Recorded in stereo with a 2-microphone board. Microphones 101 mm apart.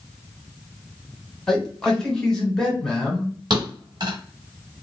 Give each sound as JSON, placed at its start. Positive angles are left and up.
{"t": 1.5, "sound": "a man speaking", "side_deg": 5, "distance_m": 1.2}
{"t": 3.5, "sound": "a thud", "side_deg": -50, "distance_m": 1.4}